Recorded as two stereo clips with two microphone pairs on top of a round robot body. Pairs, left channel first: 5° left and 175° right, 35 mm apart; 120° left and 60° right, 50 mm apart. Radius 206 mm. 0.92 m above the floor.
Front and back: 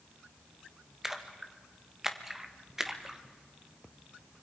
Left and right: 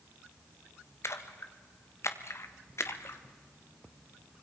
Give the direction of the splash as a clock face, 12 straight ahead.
9 o'clock.